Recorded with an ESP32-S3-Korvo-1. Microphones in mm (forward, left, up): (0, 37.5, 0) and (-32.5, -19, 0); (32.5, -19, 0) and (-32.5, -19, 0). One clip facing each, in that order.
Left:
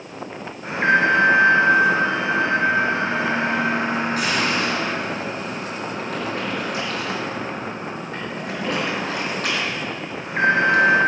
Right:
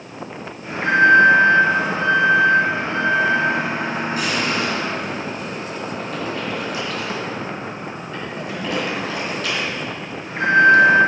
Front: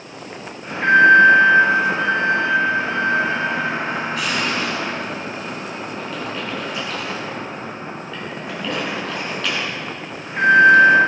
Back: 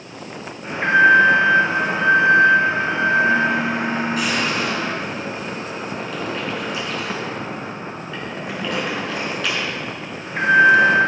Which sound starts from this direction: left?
An alarm, at 0.6 s.